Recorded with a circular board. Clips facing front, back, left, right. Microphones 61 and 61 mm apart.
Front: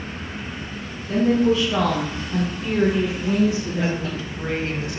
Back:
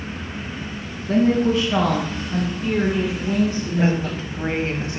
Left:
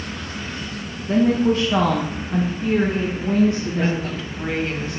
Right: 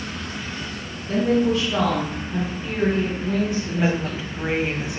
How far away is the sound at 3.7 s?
About 1.4 m.